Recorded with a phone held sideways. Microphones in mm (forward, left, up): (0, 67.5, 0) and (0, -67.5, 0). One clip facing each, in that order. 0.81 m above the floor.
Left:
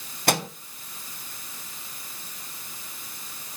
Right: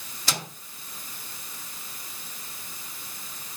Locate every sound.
0.3 s a microwave: 60° left (ahead or behind), 0.8 m